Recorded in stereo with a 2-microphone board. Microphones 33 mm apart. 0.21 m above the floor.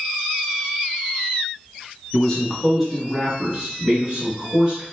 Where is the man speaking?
20° left (ahead or behind), 1.1 m; by 4.8 s 30° right (ahead or behind), 2.0 m.